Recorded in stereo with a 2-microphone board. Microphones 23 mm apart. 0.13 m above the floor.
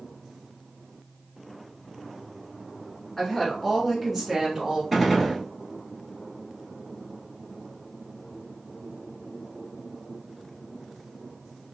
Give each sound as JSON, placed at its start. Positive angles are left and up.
{"t": 3.2, "sound": "a woman speaking", "side_deg": 25, "distance_m": 1.5}
{"t": 4.9, "sound": "a gunshot", "side_deg": 0, "distance_m": 1.2}